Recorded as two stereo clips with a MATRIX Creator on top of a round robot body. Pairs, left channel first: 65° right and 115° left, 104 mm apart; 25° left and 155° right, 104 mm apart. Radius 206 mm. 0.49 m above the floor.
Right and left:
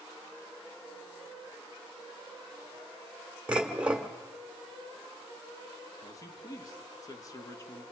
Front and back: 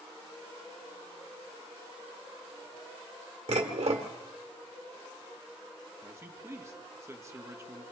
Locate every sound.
3.5 s dishes clattering: 170° right, 1.6 m
6.0 s a man speaking: 105° right, 1.7 m